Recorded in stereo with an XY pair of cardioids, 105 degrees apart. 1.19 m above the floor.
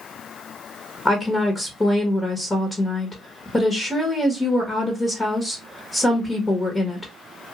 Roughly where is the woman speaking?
Ahead.